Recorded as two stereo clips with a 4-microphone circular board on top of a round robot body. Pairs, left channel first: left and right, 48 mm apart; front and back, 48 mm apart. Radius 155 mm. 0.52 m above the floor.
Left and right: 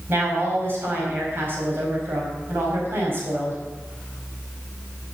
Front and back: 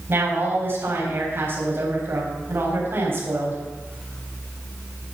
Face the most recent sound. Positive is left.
turn(degrees=-135)